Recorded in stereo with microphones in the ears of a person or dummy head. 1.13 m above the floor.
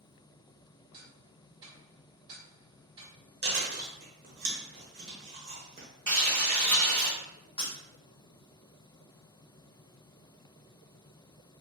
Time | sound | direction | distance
0.9 | ticking | 30° right (ahead or behind) | 1.1 m
3.4 | chewing | 45° right (ahead or behind) | 1.0 m
6.1 | frying | 20° right (ahead or behind) | 1.6 m
7.6 | breaking glass | 30° left (ahead or behind) | 1.7 m